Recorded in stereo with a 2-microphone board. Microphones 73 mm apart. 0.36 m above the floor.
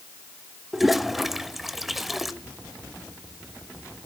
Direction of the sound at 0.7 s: 5° right (ahead or behind).